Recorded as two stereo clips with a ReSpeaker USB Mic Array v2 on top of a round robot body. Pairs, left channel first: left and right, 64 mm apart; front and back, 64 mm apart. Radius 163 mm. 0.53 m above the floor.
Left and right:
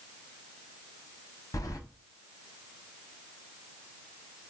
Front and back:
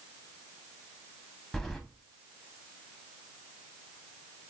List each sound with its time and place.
1.5 s keys jangling: 85° left, 0.9 m